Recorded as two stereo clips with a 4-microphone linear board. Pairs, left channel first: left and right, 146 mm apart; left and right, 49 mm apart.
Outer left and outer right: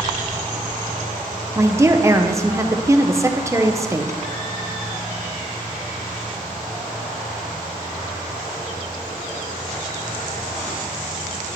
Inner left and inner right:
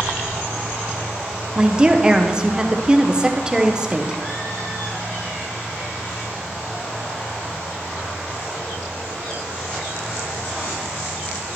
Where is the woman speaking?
20° right (ahead or behind), 0.6 m.